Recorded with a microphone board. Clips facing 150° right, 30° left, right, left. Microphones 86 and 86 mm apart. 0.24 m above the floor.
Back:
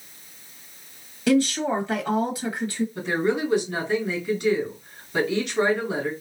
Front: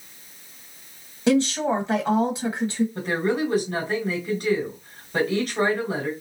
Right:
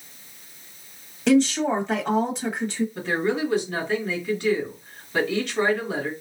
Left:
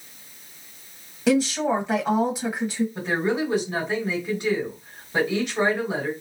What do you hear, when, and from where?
1.3 s a woman speaking: 15° left, 1.1 m
3.0 s a woman speaking: 30° left, 2.0 m